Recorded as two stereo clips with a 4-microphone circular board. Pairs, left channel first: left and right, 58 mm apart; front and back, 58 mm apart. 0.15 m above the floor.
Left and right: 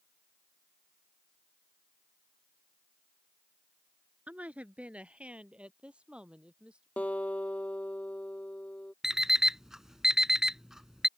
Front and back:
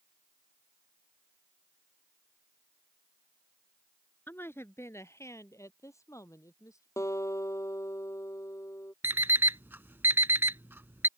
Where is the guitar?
25° left.